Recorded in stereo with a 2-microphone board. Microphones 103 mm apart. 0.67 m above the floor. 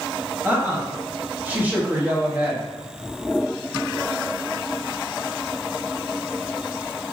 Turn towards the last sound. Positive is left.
turn(degrees=-20)  # may be behind; listen again after turning